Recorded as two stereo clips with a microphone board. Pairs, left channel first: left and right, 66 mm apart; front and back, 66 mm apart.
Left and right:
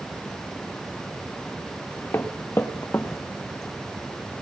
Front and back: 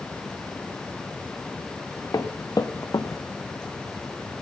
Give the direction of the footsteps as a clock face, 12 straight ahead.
11 o'clock.